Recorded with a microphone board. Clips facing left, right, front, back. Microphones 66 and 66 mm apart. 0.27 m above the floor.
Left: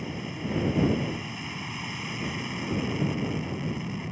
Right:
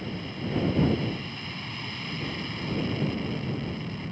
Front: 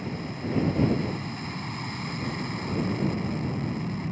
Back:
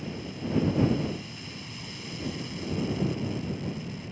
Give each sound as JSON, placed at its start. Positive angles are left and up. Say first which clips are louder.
{"t": 0.0, "sound": "an aircraft", "louder": "even, front 2 dB", "azimuth_deg": 15}